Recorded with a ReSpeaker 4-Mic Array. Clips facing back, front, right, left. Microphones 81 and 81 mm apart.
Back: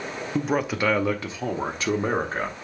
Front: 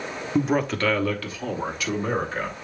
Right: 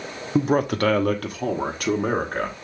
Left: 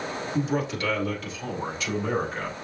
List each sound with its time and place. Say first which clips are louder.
0.3 s a man speaking: front 2 dB, right 8 dB; 80° right, 0.6 m; by 2.5 s 130° right, 1.4 m